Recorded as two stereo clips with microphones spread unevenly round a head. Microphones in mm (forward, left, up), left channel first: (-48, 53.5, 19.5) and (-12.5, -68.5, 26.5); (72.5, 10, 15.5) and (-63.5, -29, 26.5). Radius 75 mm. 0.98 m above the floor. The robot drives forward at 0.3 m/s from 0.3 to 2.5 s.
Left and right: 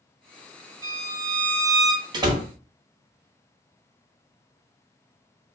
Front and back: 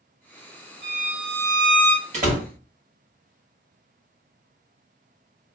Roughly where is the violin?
Behind right.